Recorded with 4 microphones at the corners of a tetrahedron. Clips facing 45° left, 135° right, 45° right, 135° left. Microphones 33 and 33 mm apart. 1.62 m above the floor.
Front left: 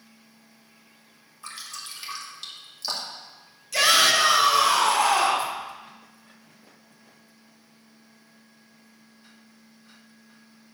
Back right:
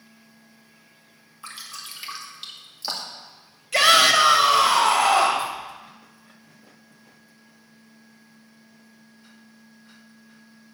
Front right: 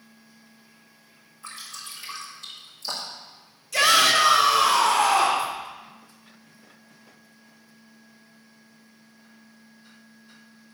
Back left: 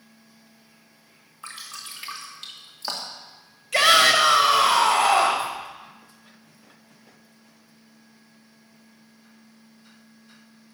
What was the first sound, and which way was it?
Dripping, 150° left.